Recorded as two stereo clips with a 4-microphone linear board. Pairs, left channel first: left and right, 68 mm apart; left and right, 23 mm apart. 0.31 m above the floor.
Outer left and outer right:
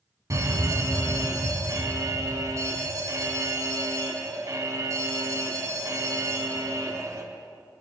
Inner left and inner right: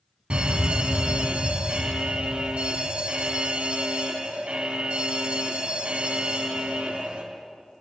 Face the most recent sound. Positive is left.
turn(degrees=-50)  # may be behind; listen again after turning